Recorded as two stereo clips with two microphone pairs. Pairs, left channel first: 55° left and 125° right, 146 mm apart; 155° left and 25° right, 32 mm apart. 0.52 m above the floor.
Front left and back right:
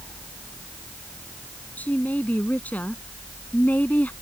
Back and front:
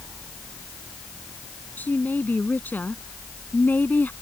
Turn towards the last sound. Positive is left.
turn(degrees=135)